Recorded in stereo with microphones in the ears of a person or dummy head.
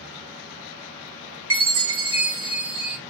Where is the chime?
70° right (ahead or behind), 0.7 m.